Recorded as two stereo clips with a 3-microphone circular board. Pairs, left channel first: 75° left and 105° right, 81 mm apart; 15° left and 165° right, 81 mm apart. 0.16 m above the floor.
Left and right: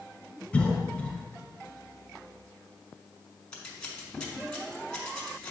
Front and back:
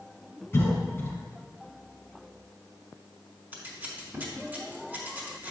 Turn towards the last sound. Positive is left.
turn(degrees=145)